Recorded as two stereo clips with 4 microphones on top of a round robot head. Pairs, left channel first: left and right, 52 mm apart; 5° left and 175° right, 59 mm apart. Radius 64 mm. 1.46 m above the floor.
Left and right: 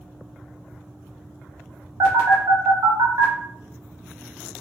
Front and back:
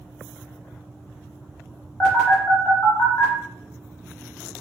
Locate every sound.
2.0 s a phone buzzing: 75° right, 0.9 m